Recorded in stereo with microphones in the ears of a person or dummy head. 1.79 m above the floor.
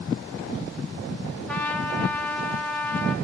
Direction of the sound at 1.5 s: 5° left (ahead or behind).